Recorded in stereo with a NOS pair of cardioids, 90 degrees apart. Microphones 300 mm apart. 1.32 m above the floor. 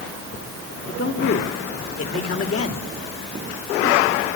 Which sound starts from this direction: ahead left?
A man speaking, at 0.9 s.